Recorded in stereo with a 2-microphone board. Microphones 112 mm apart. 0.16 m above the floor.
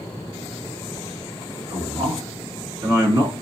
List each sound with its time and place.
1.7 s a man speaking: 20° right (ahead or behind), 2.5 m; by 3.3 s 30° right (ahead or behind), 2 m